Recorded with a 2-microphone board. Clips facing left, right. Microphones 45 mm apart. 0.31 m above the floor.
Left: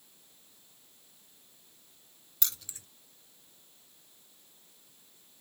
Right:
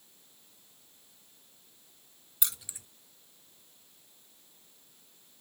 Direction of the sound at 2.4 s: 10° right (ahead or behind).